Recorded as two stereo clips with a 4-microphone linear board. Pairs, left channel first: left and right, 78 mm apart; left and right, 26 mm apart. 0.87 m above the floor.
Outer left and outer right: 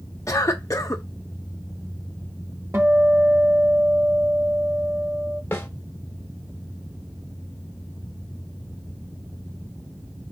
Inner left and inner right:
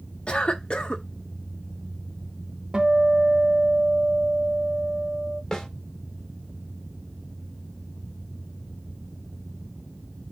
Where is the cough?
45° left (ahead or behind), 0.6 m.